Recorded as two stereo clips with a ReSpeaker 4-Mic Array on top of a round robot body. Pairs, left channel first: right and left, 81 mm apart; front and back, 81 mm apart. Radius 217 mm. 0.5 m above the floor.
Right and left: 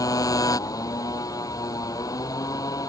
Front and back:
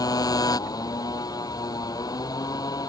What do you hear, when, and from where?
0.0 s a motorcycle: 45° right